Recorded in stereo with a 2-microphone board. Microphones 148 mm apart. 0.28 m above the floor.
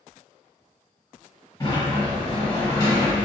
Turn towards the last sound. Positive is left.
turn(degrees=30)  # may be behind; listen again after turning